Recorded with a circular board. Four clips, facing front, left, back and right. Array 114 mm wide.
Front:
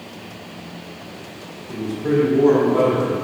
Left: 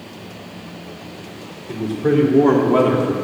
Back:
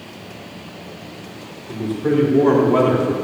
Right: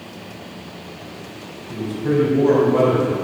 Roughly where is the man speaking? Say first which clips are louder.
Left 3 dB, back 1 dB; left.